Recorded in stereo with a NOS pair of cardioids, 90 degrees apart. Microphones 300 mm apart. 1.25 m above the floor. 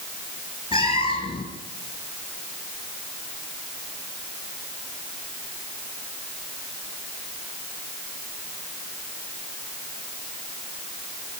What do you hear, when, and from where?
0.7 s a cat meowing: 20° left, 10 m